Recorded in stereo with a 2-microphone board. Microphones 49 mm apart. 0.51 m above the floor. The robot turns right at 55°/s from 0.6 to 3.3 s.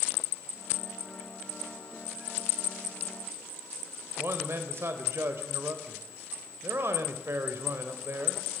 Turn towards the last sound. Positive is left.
turn(degrees=-55)  # may be behind; listen again after turning